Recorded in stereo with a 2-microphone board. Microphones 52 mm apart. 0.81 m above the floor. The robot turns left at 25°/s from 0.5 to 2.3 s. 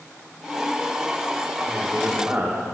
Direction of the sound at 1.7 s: 10° right (ahead or behind).